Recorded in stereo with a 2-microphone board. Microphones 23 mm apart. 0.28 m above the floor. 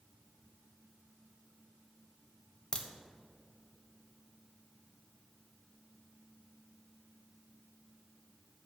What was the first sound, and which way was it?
A crack, 30° left (ahead or behind).